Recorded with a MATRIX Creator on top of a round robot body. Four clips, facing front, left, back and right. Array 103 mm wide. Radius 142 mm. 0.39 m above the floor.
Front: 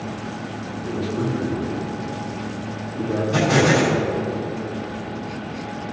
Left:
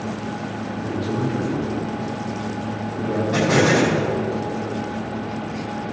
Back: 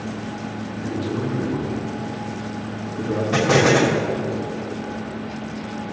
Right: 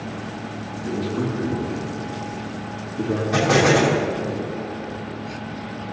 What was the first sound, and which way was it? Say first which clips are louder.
A man speaking: even, front 1 dB; 150° left.